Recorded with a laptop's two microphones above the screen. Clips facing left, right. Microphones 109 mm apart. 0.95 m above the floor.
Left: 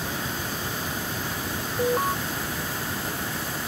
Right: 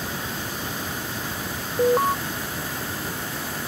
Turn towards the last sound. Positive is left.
turn(degrees=-25)  # may be behind; listen again after turning